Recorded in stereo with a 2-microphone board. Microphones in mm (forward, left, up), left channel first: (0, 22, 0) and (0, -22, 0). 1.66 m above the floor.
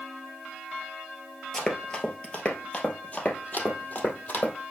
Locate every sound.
1.5 s running footsteps: 10° left (ahead or behind), 1.8 m; by 4.5 s 40° left (ahead or behind), 3 m